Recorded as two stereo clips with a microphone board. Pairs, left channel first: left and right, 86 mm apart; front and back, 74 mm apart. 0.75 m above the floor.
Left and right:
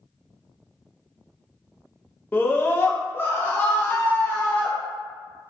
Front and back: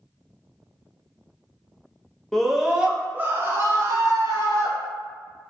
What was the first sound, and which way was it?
A scream, 75° left.